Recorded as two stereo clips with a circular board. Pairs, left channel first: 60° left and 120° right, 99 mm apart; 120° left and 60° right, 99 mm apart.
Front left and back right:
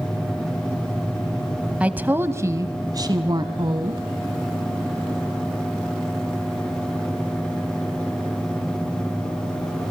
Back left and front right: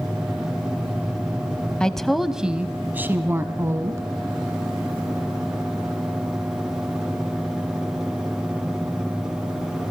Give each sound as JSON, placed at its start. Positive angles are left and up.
{"t": 1.8, "sound": "a woman speaking", "azimuth_deg": -175, "distance_m": 1.0}